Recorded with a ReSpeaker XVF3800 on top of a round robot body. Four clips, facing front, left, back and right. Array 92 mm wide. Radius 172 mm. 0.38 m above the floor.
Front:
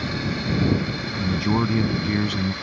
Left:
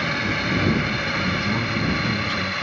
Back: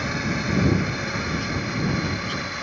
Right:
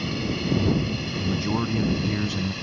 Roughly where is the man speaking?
Ahead.